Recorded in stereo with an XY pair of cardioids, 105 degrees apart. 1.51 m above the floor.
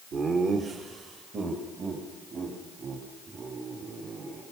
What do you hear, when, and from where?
0.1 s laughter: 55° right, 2 m; by 4.4 s 50° right, 6.5 m